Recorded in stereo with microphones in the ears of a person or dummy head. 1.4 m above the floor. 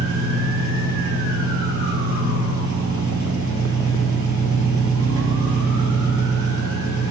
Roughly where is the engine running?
Right.